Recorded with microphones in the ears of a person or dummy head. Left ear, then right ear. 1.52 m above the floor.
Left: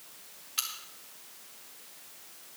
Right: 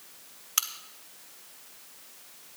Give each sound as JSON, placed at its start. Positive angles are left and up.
{"t": 0.6, "sound": "a crack", "side_deg": -45, "distance_m": 1.2}